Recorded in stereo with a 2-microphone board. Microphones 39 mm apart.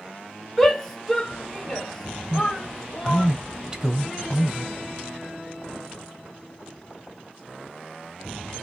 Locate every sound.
0.6 s a shout: 5° left (ahead or behind), 3.5 m
2.3 s a man speaking: 20° right (ahead or behind), 1.1 m